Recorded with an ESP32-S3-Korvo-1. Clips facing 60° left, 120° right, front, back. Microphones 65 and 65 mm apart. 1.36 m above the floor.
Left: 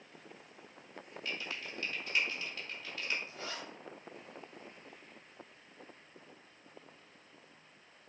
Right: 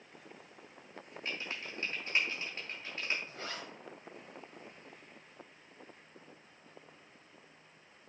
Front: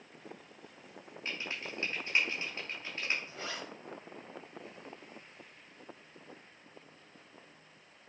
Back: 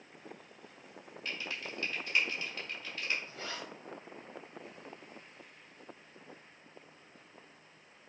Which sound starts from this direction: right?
A zipper, at 3.3 s.